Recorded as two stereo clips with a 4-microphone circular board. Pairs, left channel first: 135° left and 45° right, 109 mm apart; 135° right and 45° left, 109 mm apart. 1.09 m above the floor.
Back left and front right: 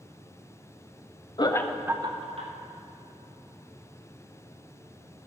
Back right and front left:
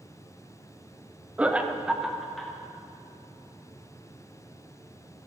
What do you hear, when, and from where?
1.4 s laughter: 120° left, 0.7 m; by 2.5 s 45° right, 1.1 m